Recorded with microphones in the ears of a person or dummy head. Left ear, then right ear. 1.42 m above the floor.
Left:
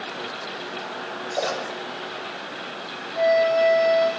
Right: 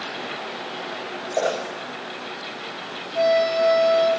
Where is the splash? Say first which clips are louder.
Right 3 dB; 40° right (ahead or behind), 7.5 m.